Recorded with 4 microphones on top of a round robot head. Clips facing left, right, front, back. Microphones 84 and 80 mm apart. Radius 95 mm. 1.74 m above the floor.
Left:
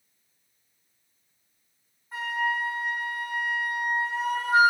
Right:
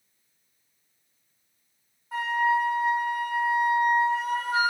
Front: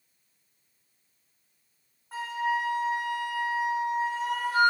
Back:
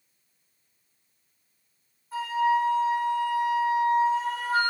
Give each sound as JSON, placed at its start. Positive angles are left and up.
{"t": 2.1, "sound": "a flute", "azimuth_deg": -45, "distance_m": 3.0}